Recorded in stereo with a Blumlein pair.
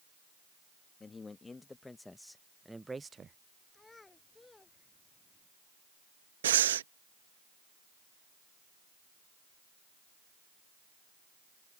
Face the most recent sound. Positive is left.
turn(degrees=-60)